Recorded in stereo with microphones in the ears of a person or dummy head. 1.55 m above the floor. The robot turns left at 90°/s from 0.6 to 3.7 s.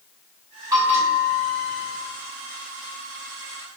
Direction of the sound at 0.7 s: 20° right.